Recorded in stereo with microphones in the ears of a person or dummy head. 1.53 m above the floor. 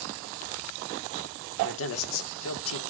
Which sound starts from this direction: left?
A man speaking, at 1.6 s.